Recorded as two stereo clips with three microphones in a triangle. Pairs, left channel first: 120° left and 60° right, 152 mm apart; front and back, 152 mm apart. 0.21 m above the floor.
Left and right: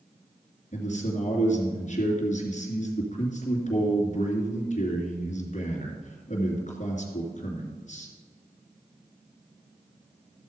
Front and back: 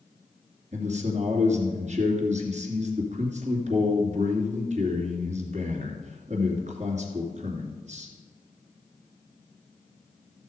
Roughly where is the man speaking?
Behind left.